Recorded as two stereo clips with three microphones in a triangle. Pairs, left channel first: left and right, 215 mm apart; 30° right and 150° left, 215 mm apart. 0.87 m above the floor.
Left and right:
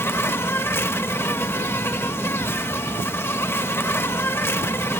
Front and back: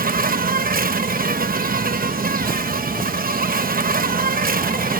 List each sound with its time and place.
0.0 s an insect: 165° left